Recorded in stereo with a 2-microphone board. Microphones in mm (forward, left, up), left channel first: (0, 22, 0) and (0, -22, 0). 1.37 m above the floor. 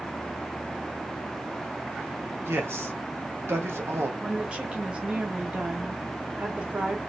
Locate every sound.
2.4 s a man speaking: 85° right, 1.6 m
4.2 s a woman speaking: 25° right (ahead or behind), 1.7 m